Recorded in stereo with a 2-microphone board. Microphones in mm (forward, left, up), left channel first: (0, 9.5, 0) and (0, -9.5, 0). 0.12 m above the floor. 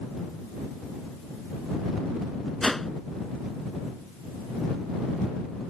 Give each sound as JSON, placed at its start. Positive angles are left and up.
{"t": 2.6, "sound": "a whoosh", "side_deg": 10}